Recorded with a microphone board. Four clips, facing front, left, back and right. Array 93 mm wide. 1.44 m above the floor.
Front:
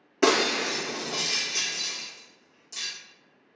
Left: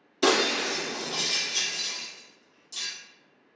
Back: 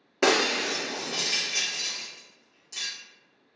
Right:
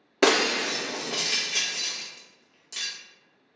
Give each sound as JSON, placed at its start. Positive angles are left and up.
{"t": 0.2, "sound": "breaking glass", "azimuth_deg": -100, "distance_m": 0.8}